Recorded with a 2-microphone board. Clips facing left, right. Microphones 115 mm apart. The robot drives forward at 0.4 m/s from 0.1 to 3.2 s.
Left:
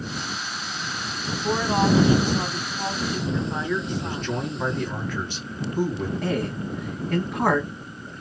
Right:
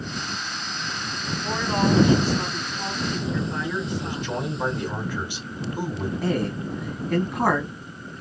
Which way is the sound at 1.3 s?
15° left (ahead or behind).